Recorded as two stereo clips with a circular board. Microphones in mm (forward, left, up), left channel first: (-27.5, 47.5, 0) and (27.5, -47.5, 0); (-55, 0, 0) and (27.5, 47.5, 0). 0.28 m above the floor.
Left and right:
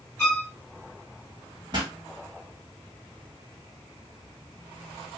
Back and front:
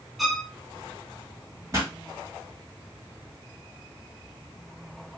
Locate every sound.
0.2 s a violin: 115° left, 1.3 m
1.7 s a pop: 25° right, 1.7 m